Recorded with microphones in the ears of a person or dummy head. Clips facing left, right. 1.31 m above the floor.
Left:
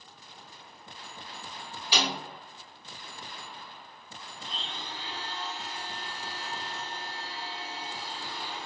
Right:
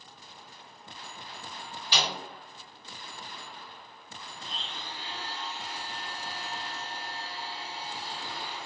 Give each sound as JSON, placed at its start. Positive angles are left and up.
{"t": 1.9, "sound": "a snare drum", "side_deg": 10, "distance_m": 1.6}
{"t": 4.4, "sound": "a blender", "side_deg": 65, "distance_m": 1.2}